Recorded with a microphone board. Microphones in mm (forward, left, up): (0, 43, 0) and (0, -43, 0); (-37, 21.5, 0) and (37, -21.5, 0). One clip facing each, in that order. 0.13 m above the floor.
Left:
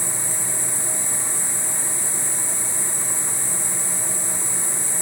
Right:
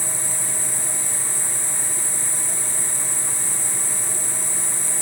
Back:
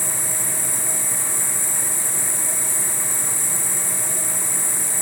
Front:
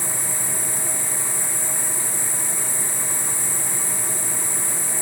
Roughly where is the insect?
Behind left.